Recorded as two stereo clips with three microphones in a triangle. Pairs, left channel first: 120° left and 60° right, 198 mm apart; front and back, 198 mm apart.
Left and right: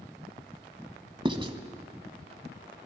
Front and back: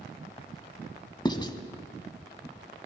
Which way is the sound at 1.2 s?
35° right.